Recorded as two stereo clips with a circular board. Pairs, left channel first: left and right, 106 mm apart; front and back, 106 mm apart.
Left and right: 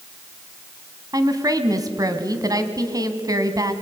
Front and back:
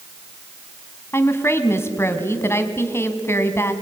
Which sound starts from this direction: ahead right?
A woman speaking, at 1.1 s.